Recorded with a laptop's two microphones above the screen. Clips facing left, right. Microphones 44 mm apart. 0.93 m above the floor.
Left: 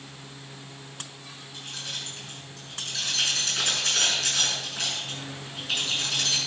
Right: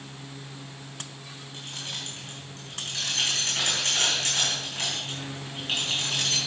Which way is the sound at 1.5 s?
50° right (ahead or behind).